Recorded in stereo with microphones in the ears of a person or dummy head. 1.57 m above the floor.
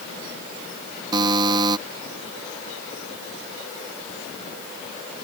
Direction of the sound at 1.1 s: 25° right (ahead or behind).